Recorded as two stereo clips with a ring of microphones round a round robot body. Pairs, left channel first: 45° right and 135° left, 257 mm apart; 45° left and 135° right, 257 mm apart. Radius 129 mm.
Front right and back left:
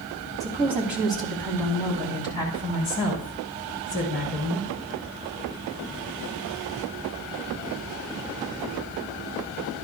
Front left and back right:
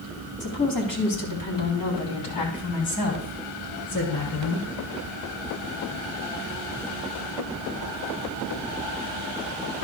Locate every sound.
0.4 s a woman speaking: 55° left, 3.5 m; by 4.7 s 5° left, 6 m